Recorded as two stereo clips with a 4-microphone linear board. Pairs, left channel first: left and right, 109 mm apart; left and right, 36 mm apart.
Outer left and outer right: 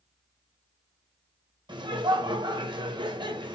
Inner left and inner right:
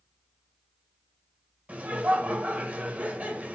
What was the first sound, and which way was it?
Laughter, 45° right (ahead or behind).